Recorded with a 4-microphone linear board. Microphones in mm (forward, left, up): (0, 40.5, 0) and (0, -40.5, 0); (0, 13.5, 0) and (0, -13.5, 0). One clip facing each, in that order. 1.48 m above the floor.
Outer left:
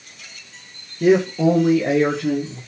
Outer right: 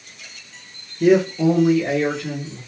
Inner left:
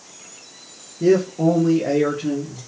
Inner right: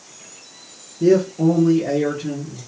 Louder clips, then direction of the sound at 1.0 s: Even, inner right 1 dB; 10° left (ahead or behind).